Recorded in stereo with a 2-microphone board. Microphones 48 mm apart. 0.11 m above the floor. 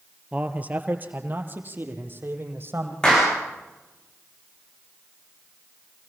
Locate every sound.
0.3 s a man speaking: 25° right (ahead or behind), 2.0 m; by 2.9 s 50° right (ahead or behind), 4.5 m
3.0 s a clap: 15° left (ahead or behind), 9 m